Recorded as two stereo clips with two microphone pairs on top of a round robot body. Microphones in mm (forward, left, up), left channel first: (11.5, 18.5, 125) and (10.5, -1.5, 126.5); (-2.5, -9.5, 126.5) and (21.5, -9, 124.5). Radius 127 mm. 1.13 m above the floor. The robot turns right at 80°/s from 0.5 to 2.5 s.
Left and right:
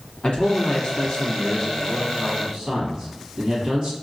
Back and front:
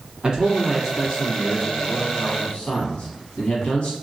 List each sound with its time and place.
0.2 s a man speaking: 55° left, 1.4 m; by 3.9 s 145° right, 1.4 m